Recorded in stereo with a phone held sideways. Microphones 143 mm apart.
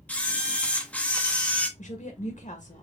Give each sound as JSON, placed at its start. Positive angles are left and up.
{"t": 0.1, "sound": "a camera shutter", "side_deg": 10, "distance_m": 0.8}
{"t": 1.8, "sound": "a woman speaking", "side_deg": 60, "distance_m": 1.3}